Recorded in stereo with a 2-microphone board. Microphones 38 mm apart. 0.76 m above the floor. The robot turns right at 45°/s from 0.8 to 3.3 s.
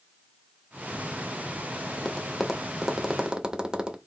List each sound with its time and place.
2.0 s tapping: 15° left (ahead or behind), 0.7 m; by 4.0 s 25° right (ahead or behind), 0.7 m